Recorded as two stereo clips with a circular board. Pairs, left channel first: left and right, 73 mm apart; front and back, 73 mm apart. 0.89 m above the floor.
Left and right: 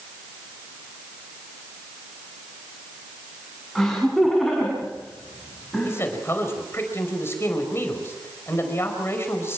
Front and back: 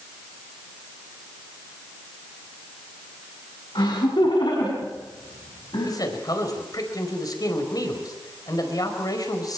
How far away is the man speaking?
About 5 m.